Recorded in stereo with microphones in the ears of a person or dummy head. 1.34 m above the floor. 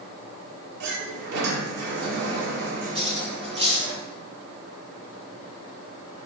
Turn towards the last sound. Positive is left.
turn(degrees=-25)  # may be behind; listen again after turning